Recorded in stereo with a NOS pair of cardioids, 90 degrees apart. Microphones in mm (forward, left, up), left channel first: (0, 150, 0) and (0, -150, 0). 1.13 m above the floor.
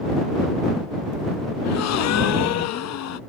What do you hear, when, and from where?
1.6 s a gasp: 65° left